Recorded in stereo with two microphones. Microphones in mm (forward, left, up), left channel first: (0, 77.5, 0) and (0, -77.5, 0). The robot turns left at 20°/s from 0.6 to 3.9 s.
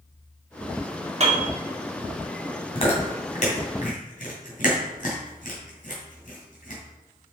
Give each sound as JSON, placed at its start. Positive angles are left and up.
{"t": 1.2, "sound": "a piano", "side_deg": -45, "distance_m": 2.0}
{"t": 2.8, "sound": "chewing", "side_deg": 40, "distance_m": 2.5}